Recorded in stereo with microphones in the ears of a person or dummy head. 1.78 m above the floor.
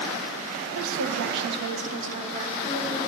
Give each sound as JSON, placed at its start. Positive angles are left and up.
{"t": 0.8, "sound": "a woman speaking", "side_deg": -85, "distance_m": 1.0}